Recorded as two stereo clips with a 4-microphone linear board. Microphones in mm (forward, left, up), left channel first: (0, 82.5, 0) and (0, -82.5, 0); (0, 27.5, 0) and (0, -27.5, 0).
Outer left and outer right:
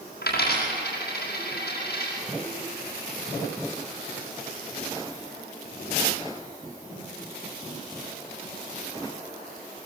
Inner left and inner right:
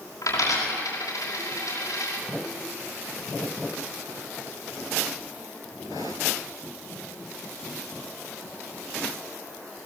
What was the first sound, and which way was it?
A dropped coin, 75° left (ahead or behind).